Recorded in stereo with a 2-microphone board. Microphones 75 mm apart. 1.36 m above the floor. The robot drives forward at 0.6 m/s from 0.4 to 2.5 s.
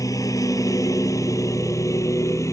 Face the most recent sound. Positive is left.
turn(degrees=45)  # may be behind; listen again after turning